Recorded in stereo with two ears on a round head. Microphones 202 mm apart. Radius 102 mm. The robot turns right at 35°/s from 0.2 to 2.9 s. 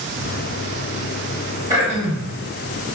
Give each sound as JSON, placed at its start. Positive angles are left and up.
{"t": 1.7, "sound": "throat clearing", "side_deg": -20, "distance_m": 1.4}